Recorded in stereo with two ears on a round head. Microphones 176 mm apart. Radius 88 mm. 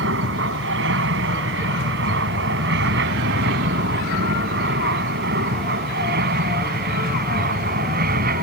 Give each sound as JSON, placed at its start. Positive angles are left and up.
{"t": 0.0, "sound": "an aircraft", "side_deg": -65}